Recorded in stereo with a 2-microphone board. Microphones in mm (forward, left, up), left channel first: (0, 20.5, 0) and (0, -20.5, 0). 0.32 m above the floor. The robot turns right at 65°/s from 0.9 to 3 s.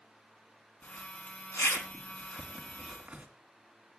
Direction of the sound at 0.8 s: 55° left (ahead or behind).